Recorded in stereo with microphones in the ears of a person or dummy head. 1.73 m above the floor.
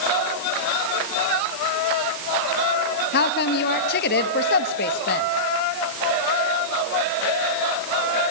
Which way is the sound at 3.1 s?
55° left (ahead or behind).